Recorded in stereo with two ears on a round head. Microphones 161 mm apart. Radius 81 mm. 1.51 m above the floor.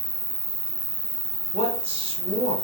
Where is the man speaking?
35° right (ahead or behind), 1.2 m.